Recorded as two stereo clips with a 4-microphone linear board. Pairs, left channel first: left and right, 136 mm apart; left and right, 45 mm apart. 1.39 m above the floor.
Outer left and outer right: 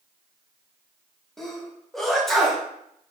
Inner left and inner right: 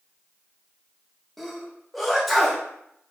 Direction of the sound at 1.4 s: Centre (ahead or behind).